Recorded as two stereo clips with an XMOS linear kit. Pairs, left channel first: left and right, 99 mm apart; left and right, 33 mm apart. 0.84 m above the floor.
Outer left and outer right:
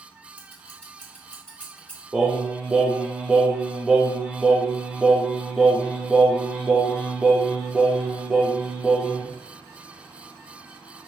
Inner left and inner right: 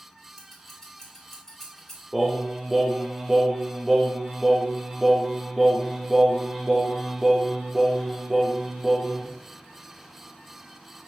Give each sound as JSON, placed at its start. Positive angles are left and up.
{"t": 0.4, "sound": "scissors", "side_deg": 15, "distance_m": 1.7}
{"t": 2.1, "sound": "singing", "side_deg": -10, "distance_m": 0.7}